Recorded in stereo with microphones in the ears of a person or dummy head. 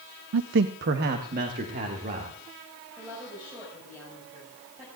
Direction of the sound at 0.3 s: 85° right.